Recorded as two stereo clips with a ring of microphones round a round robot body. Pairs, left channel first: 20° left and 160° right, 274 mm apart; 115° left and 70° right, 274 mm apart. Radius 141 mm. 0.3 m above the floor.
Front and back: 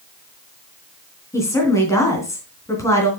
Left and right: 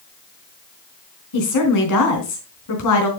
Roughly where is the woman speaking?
Left.